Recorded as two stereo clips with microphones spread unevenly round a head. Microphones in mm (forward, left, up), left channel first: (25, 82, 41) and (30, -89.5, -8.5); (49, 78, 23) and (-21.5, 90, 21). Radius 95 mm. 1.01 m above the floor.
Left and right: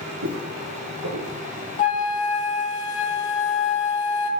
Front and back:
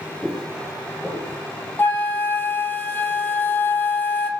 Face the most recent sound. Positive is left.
turn(degrees=50)